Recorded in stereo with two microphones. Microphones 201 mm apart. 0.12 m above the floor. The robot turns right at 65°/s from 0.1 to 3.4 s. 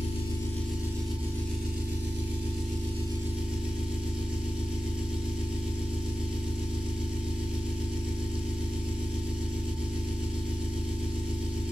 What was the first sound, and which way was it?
An engine running, 140° left.